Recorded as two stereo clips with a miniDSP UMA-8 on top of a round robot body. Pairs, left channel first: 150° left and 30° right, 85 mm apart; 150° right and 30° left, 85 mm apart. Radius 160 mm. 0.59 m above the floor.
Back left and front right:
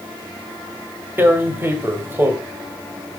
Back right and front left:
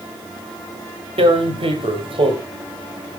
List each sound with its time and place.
1.2 s tearing paper: 35° left, 2 m